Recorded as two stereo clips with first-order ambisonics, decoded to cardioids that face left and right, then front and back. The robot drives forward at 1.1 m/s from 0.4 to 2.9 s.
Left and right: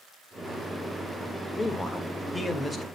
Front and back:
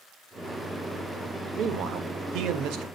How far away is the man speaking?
About 1.3 m.